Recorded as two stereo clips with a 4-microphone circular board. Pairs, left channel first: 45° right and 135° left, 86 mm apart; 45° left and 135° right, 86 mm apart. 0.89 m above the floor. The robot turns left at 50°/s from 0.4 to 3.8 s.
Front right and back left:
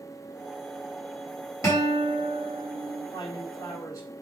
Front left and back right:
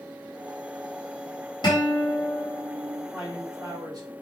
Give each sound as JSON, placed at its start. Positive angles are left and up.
{"t": 1.6, "sound": "a guitar", "azimuth_deg": 10, "distance_m": 4.0}
{"t": 3.1, "sound": "a man speaking", "azimuth_deg": -60, "distance_m": 3.0}